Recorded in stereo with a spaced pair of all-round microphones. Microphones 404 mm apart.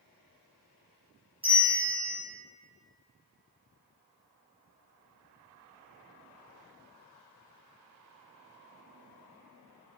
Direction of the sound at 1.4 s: 15° right (ahead or behind).